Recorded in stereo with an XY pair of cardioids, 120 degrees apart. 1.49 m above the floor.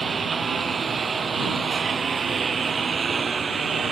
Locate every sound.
0.0 s a lawn mower: 30° right